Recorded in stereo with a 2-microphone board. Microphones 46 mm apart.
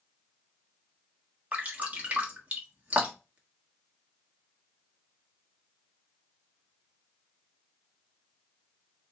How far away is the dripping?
About 1.4 m.